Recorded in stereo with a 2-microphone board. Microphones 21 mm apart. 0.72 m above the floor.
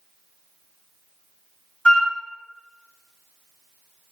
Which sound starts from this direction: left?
A flute, at 1.9 s.